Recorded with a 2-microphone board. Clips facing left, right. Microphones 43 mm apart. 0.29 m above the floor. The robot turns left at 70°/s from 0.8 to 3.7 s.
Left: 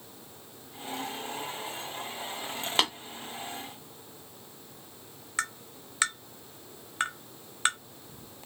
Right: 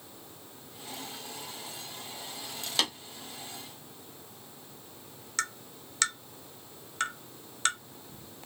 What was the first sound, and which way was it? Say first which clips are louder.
Tapping: left 3 dB; 35° left (ahead or behind).